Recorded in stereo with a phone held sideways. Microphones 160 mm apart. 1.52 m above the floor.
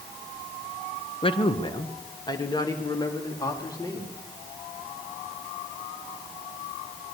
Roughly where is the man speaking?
Left.